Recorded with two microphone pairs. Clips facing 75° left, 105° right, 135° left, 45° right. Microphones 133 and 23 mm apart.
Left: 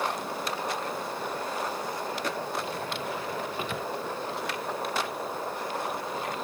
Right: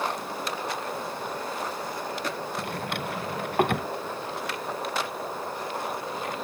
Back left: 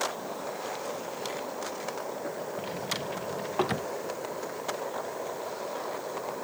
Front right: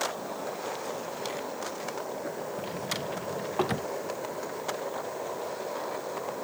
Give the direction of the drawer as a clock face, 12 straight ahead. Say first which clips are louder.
Right 1 dB, even; 5 o'clock.